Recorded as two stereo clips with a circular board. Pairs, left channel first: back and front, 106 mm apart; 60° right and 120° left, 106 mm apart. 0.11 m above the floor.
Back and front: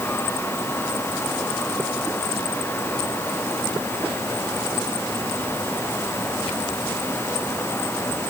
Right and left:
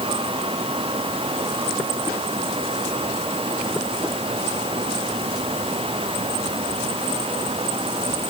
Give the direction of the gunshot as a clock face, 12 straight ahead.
No gunshot in this recording.